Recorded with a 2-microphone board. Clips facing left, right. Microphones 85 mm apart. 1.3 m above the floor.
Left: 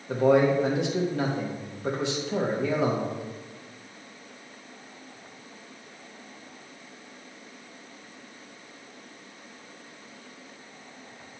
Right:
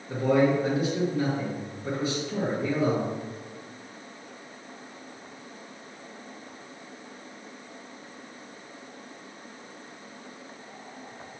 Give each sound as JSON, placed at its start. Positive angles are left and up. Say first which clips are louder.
{"t": 0.1, "sound": "a man speaking", "louder": "left 2 dB", "side_deg": 75, "distance_m": 1.6}